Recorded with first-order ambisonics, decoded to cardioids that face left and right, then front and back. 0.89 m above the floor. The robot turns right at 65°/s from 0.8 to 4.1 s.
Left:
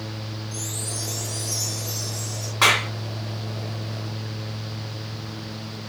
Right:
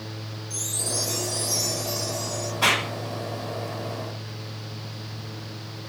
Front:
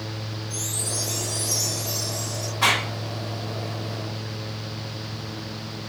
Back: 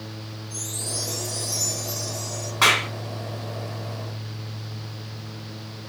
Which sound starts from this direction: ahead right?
A chime, at 0.5 s.